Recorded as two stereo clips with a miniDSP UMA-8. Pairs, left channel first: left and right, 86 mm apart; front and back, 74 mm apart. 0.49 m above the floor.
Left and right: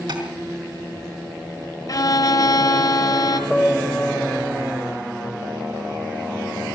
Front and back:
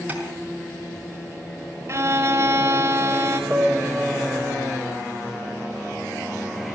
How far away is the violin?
About 2.0 m.